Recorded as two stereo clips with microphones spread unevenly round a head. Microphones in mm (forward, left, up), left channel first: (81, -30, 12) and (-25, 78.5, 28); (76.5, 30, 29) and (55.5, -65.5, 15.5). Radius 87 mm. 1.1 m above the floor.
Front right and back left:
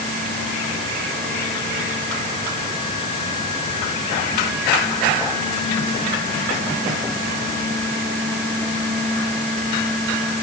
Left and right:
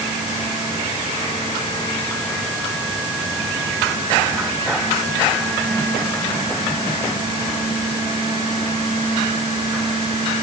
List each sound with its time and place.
Only background noise.